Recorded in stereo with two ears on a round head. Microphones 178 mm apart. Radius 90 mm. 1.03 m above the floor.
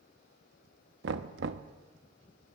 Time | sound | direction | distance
1.0 | knocking | 60° right (ahead or behind) | 0.7 m